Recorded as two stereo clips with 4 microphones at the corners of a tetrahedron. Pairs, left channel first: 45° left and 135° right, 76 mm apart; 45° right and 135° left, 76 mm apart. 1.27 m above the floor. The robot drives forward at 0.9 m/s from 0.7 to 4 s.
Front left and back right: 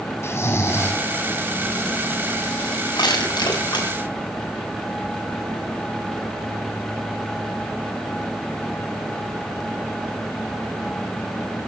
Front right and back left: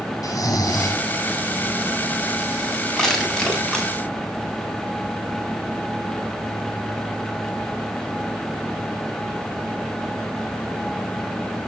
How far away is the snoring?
About 4 m.